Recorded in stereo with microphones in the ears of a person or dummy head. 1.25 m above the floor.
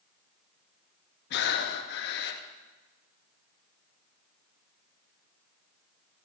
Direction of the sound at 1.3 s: 60° left (ahead or behind).